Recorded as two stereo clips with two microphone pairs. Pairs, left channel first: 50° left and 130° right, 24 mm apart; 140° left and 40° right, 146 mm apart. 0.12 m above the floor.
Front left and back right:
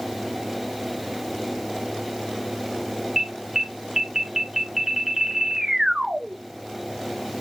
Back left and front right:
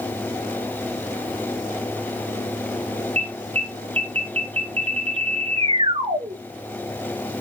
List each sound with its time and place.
3.2 s an alarm: 60° right, 1.0 m